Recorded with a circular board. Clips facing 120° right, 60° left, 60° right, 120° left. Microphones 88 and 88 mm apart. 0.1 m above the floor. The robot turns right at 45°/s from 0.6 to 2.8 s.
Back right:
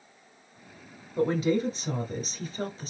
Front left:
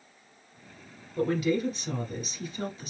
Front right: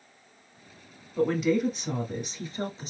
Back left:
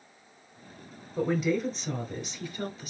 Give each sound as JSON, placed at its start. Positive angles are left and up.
{"t": 1.2, "sound": "a woman speaking", "azimuth_deg": -165, "distance_m": 1.7}